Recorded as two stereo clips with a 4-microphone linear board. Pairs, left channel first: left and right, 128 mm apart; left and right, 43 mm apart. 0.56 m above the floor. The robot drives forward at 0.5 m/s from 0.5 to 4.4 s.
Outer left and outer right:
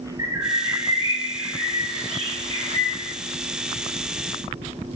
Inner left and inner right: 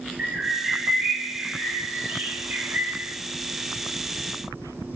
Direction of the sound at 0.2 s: 30° right (ahead or behind).